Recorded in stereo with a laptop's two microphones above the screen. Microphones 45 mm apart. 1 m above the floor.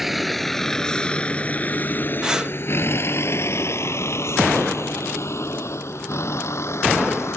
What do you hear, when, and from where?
0.0 s a vehicle: centre (ahead or behind); by 7.4 s 80° left
2.2 s breathing: 20° right (ahead or behind)